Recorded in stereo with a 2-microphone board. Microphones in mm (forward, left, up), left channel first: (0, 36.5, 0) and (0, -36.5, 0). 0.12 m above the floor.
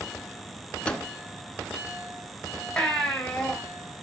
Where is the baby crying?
10° left (ahead or behind), 3 m.